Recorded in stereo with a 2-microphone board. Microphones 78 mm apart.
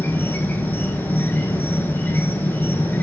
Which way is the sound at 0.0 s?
25° left (ahead or behind).